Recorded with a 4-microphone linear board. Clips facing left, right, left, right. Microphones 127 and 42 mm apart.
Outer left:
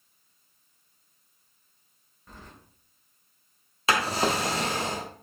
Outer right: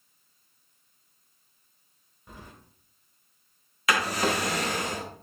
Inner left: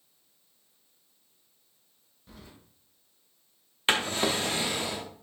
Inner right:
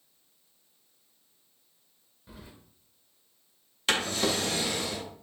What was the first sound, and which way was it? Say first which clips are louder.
Keys jangling: outer right 1 dB, inner right 1 dB; 10° right (ahead or behind).